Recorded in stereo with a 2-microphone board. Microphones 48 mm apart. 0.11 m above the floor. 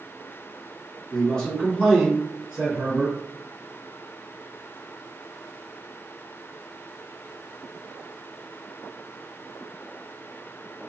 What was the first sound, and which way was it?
A man speaking, 20° left (ahead or behind).